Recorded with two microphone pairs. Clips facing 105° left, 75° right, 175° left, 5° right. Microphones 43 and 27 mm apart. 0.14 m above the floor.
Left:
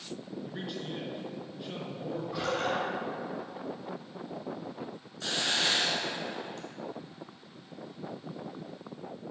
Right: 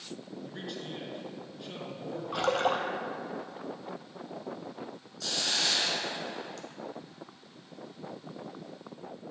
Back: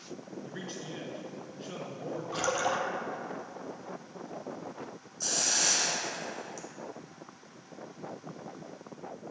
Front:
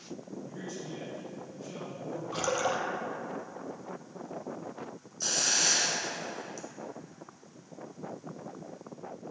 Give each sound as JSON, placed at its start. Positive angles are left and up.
{"t": 0.4, "sound": "a man speaking", "azimuth_deg": -170, "distance_m": 1.7}
{"t": 2.3, "sound": "a splash", "azimuth_deg": -90, "distance_m": 0.9}
{"t": 5.2, "sound": "a hiss", "azimuth_deg": 60, "distance_m": 1.0}